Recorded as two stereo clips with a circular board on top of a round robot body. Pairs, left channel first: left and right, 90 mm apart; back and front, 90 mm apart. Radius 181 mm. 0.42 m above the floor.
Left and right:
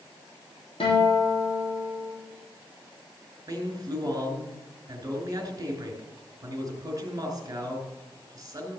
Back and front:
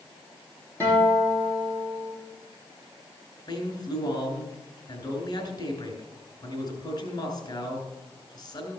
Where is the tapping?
I don't hear tapping.